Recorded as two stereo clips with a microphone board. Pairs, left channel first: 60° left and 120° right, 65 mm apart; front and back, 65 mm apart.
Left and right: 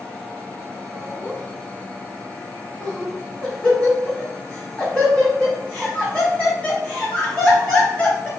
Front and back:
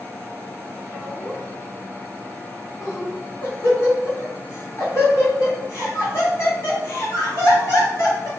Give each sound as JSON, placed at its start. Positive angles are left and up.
{"t": 0.9, "sound": "laughter", "azimuth_deg": 0, "distance_m": 1.8}